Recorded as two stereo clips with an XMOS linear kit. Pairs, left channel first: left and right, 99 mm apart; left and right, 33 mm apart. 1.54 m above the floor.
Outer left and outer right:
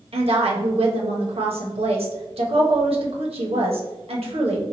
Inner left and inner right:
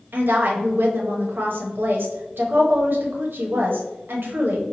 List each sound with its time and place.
0.1 s a woman speaking: 75° right (ahead or behind), 0.9 m